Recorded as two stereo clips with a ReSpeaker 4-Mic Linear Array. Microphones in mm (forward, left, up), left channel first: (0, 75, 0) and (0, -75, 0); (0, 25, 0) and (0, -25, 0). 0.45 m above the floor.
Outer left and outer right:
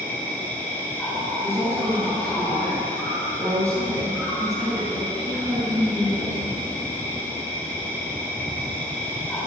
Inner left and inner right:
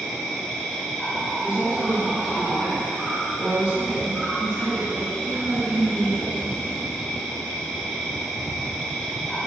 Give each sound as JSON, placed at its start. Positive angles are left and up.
{"t": 0.0, "sound": "an insect", "side_deg": 10, "distance_m": 3.0}
{"t": 1.4, "sound": "a woman speaking", "side_deg": -20, "distance_m": 5.0}